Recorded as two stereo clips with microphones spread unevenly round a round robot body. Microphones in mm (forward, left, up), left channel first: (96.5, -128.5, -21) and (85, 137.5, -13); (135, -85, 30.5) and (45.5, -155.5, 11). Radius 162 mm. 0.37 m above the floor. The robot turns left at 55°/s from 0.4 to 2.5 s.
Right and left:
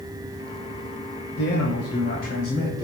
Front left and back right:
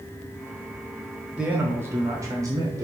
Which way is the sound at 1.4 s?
75° right.